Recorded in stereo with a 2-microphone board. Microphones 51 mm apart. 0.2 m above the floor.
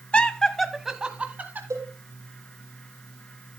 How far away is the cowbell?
About 5 m.